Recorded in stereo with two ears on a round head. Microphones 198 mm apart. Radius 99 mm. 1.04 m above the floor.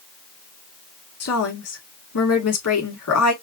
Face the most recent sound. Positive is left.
turn(degrees=80)